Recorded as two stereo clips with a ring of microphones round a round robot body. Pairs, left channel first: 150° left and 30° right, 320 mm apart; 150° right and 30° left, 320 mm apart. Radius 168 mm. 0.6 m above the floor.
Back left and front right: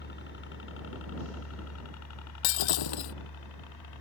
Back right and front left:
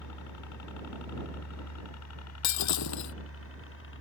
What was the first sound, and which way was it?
A helicopter, 160° right.